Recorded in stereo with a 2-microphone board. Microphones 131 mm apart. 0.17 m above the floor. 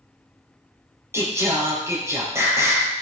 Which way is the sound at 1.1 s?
20° right (ahead or behind).